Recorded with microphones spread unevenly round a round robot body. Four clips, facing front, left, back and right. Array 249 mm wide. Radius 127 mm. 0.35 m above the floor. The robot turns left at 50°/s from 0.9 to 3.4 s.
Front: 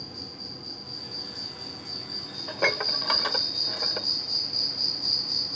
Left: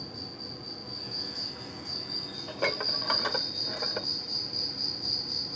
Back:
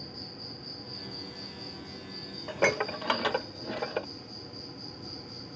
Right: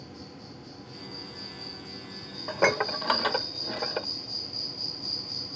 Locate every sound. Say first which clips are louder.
0.0 s an insect: left 1 dB, front 2 dB; 95° left; by 5.6 s 30° right
2.5 s dishes clattering: right 7 dB, back 1 dB; 110° right; by 4.1 s 155° right